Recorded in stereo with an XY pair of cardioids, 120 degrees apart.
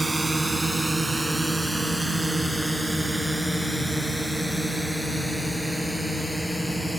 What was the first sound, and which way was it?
A drone, 10° right.